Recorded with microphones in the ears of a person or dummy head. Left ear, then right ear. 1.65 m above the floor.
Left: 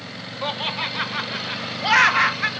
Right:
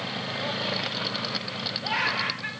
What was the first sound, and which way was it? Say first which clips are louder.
Laughter: left 6 dB; 45° left (ahead or behind).